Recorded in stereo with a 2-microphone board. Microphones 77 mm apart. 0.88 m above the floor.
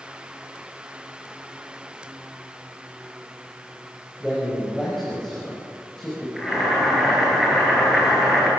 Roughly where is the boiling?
Centre.